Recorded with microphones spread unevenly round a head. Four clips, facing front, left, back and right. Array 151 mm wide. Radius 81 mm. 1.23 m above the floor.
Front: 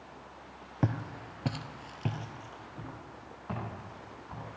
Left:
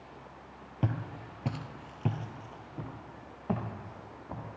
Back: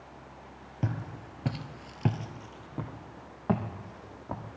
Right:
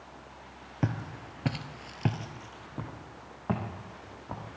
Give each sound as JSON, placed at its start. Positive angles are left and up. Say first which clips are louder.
{"t": 0.8, "sound": "footsteps", "louder": "right 2 dB, front 3 dB", "azimuth_deg": -20, "distance_m": 1.4}